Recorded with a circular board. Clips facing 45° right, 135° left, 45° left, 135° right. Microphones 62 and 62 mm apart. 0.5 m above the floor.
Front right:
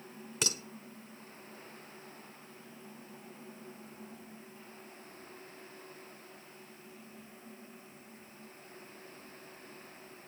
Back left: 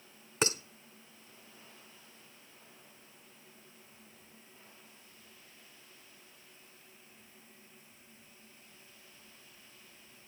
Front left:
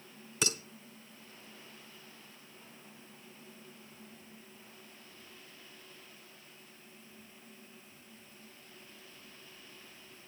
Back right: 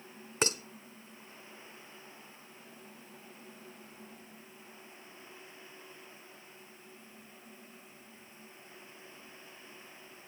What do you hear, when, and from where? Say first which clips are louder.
0.4 s dishes clattering: back left 6 dB, back right 3 dB; 175° right, 1.0 m